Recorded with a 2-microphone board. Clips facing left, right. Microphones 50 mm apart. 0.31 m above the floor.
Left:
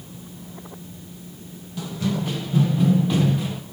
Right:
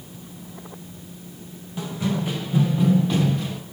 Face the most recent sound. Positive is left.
turn(degrees=10)  # may be behind; listen again after turning